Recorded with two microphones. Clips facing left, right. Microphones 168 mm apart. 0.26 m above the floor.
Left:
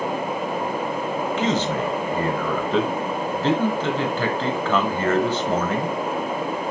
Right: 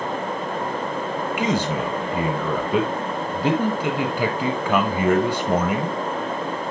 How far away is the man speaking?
About 1.2 m.